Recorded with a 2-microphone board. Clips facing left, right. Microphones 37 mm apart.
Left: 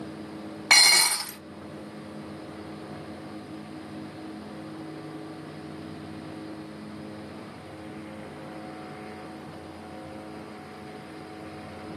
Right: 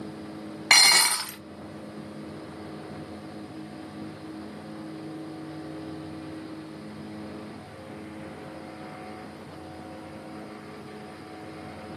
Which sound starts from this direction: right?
Dishes clattering, at 0.7 s.